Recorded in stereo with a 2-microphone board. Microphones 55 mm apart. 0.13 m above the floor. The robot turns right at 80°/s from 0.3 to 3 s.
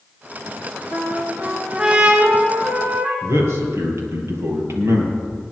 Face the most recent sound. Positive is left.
turn(degrees=-60)  # may be behind; listen again after turning